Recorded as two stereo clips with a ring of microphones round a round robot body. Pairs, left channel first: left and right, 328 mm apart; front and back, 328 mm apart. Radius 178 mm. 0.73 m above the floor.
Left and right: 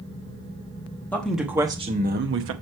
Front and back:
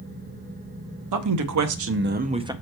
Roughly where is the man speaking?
Behind.